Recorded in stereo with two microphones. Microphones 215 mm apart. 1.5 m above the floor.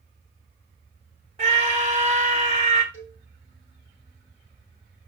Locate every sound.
1.4 s a scream: 30° right (ahead or behind), 1.1 m
2.9 s a cowbell: 85° left, 6 m